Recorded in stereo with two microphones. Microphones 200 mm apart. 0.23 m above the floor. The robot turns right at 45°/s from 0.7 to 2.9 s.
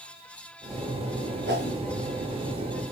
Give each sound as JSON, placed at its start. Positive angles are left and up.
{"t": 1.5, "sound": "a whoosh", "side_deg": -60, "distance_m": 3.5}